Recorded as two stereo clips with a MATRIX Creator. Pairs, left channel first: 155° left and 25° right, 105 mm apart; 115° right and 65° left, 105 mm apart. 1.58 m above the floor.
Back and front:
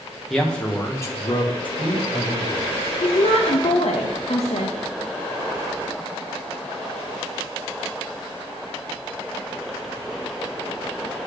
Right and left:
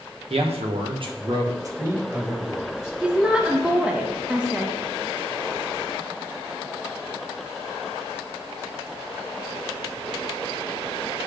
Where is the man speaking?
70° left, 1.3 m; by 2.9 s 155° left, 1.6 m.